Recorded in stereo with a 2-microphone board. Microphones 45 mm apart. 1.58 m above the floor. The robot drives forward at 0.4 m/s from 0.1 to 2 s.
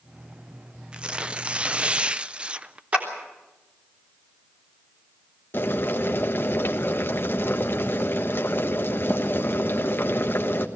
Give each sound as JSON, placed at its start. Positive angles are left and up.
{"t": 0.9, "sound": "tearing paper", "side_deg": -20, "distance_m": 0.6}
{"t": 2.9, "sound": "a clap", "side_deg": -30, "distance_m": 3.5}
{"t": 5.5, "sound": "boiling", "side_deg": 50, "distance_m": 1.3}